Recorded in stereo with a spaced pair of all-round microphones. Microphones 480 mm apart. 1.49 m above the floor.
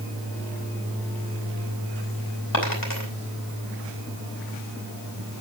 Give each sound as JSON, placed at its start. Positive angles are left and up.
{"t": 2.5, "sound": "a dropped coin", "side_deg": 45, "distance_m": 4.0}